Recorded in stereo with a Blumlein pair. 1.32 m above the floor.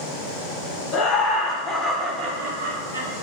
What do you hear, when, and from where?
0.9 s laughter: 30° left, 0.8 m; by 3.1 s 65° right, 0.7 m